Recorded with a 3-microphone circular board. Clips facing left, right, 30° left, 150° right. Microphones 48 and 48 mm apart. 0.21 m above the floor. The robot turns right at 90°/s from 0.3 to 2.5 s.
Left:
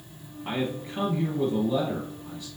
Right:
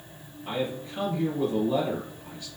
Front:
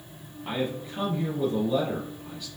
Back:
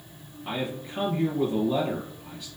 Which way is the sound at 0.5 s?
105° left.